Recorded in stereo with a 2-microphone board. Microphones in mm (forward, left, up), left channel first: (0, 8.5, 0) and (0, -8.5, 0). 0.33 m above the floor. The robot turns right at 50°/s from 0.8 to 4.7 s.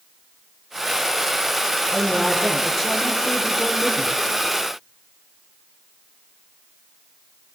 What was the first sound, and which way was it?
A woman speaking, 45° right.